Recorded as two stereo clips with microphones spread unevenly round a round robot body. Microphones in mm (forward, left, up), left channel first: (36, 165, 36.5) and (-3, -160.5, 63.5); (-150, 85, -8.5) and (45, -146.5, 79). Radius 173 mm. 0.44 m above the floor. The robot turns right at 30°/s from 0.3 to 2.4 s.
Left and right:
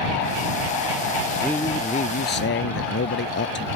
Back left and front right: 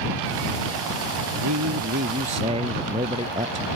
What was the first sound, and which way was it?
A man speaking, 5° right.